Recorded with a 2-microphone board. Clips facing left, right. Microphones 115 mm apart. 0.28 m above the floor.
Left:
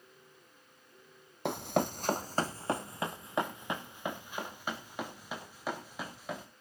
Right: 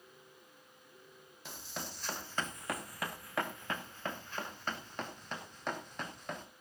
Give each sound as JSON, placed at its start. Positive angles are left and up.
{"t": 1.4, "sound": "running footsteps", "side_deg": 70, "distance_m": 0.6}